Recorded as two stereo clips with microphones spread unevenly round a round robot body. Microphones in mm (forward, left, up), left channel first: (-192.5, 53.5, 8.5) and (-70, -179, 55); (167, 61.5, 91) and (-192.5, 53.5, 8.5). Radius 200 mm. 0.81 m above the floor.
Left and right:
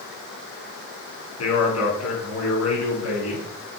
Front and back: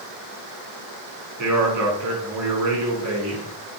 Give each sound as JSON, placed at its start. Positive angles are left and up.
{"t": 1.4, "sound": "a man speaking", "azimuth_deg": 145, "distance_m": 7.0}